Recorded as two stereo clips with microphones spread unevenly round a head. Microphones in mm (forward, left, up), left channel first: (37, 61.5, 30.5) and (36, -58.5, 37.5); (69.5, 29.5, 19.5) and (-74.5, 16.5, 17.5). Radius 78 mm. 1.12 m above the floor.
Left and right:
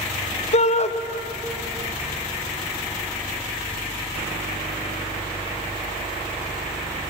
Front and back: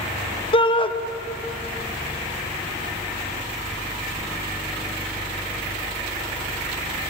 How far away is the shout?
About 1.4 m.